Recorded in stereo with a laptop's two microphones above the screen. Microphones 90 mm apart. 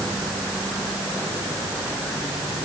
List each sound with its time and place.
Only background noise.